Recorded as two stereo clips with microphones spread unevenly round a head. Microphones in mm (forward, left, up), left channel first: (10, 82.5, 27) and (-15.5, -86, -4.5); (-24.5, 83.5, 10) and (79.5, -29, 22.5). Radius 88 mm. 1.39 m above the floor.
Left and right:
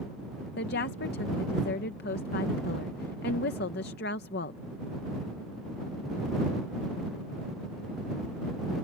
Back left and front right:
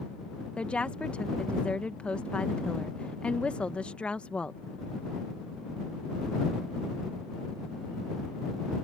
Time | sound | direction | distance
0.6 | a woman speaking | 50° left | ?